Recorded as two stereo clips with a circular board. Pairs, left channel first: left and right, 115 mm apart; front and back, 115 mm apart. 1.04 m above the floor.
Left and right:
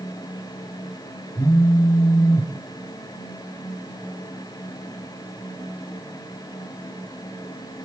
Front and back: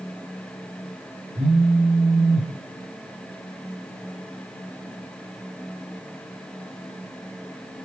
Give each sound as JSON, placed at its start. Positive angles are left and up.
{"t": 1.4, "sound": "a phone buzzing", "azimuth_deg": 150, "distance_m": 1.5}